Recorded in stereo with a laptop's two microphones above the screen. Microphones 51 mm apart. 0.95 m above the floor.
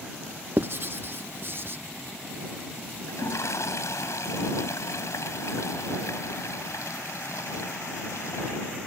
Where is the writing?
45° right (ahead or behind).